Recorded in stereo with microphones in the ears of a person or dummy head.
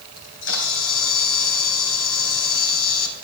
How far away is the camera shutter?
About 2.5 m.